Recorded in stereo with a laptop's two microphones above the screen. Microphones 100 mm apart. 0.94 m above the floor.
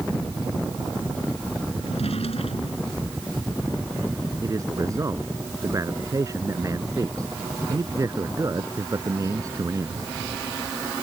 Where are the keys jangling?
No keys jangling in this recording.